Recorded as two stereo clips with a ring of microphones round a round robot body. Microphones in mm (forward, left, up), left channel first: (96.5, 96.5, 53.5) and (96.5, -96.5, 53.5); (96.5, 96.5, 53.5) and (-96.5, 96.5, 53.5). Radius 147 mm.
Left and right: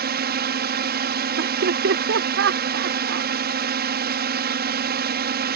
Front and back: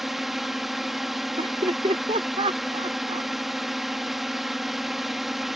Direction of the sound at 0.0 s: 90° right.